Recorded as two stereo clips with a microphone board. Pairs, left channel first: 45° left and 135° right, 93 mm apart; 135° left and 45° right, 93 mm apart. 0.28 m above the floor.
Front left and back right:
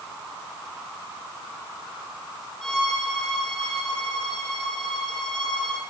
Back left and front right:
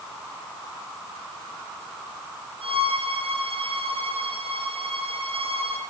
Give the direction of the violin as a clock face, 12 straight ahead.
1 o'clock.